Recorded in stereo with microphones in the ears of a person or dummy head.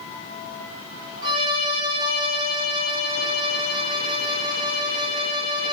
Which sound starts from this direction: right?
A violin, at 1.2 s.